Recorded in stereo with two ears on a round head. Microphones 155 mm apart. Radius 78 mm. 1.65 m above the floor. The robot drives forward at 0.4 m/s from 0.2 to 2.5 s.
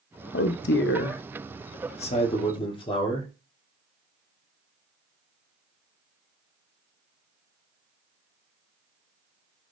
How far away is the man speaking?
About 0.5 m.